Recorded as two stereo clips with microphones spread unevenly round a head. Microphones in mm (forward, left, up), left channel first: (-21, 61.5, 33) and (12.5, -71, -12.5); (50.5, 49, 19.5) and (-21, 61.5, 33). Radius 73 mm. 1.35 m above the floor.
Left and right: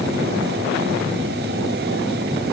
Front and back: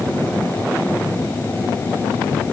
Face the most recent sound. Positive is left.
No sound to turn to.